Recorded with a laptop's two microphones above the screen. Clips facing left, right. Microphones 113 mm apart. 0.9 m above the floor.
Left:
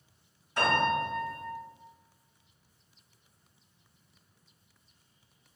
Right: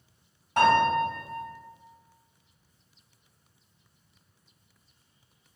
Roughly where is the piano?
Right.